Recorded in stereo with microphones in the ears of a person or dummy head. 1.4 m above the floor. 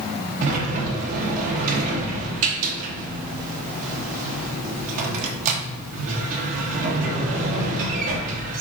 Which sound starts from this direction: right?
A sliding door, at 0.4 s.